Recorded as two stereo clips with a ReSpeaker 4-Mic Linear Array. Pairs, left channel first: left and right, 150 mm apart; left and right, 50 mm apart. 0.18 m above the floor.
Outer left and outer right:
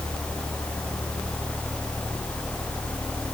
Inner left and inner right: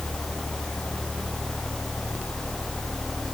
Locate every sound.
Only background noise.